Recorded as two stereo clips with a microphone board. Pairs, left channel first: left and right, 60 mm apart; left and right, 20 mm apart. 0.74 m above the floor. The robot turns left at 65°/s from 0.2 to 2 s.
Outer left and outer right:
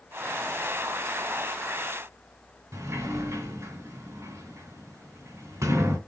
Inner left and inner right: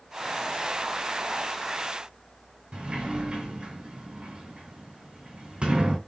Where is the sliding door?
60° right (ahead or behind), 2.5 m.